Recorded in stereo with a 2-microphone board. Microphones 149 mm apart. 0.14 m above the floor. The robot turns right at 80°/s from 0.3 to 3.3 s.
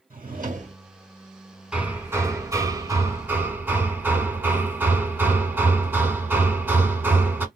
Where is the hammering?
5° right (ahead or behind), 0.8 m; by 7.5 s 15° right (ahead or behind), 0.8 m.